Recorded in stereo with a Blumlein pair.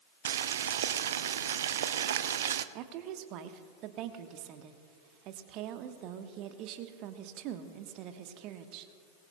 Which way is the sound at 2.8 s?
40° right.